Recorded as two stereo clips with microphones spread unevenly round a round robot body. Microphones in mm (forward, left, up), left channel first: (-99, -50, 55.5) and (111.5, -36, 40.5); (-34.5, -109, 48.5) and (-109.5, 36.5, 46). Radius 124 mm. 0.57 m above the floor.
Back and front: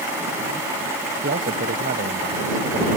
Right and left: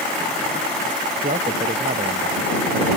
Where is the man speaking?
60° left.